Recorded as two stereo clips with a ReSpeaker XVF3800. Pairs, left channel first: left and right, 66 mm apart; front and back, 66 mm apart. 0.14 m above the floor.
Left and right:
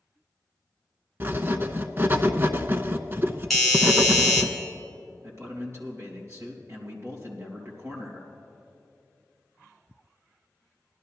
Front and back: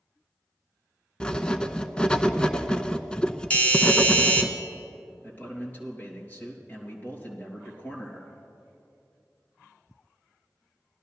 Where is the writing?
70° right, 0.5 m.